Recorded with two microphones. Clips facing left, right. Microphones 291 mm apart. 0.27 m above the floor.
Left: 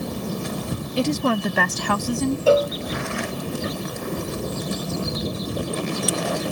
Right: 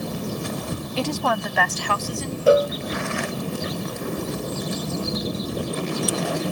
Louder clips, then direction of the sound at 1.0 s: Left 5 dB; 15° left (ahead or behind).